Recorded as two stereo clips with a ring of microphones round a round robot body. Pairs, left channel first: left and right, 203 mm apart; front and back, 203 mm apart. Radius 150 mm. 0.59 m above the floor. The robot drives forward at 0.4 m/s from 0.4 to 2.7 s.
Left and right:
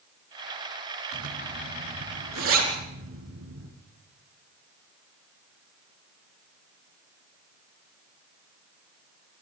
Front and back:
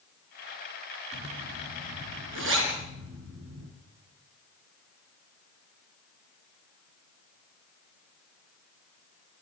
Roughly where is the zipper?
Behind right.